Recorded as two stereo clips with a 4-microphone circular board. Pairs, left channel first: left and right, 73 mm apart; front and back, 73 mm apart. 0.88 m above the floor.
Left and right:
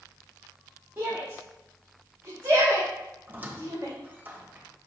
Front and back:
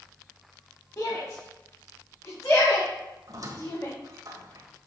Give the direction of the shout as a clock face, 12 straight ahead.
1 o'clock.